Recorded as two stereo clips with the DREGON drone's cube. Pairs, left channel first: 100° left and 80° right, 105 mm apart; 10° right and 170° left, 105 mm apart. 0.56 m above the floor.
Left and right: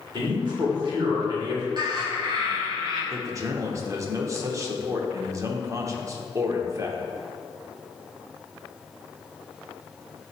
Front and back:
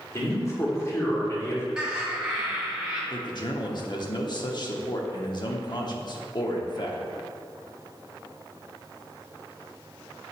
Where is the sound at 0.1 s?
65° right, 1.9 m.